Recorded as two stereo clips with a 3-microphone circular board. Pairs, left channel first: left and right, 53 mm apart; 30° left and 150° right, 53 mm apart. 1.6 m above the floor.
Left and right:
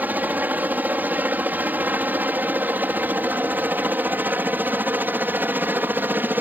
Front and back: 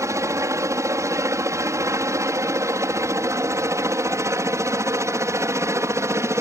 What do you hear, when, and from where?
0.0 s a helicopter: 145° right; by 6.4 s 140° right